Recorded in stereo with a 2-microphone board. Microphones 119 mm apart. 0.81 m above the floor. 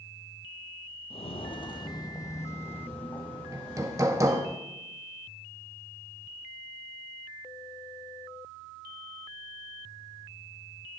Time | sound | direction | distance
1.1 | footsteps | 55° left (ahead or behind) | 1.3 m
3.5 | hammering | 25° right (ahead or behind) | 0.9 m